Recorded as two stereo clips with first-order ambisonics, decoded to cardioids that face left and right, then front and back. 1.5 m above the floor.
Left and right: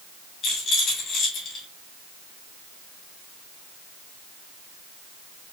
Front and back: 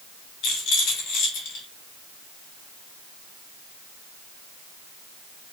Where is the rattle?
35° left, 1.7 m.